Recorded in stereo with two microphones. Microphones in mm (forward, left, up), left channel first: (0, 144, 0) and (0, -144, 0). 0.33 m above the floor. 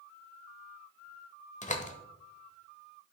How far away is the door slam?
About 1.0 m.